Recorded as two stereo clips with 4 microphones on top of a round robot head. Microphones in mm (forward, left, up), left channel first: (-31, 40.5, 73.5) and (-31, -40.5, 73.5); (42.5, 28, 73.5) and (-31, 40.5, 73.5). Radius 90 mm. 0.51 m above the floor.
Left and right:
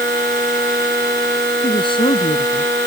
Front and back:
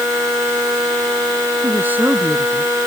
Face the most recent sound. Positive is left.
turn(degrees=95)